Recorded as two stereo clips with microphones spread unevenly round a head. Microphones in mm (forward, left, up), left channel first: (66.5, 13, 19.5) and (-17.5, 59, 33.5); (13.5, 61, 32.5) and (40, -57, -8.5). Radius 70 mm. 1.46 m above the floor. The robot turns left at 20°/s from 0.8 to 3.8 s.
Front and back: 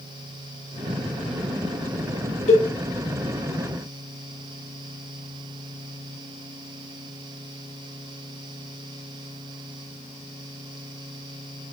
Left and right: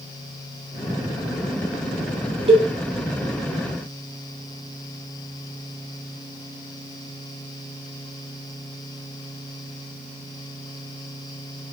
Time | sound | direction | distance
2.5 | a cowbell | 30° right | 2 m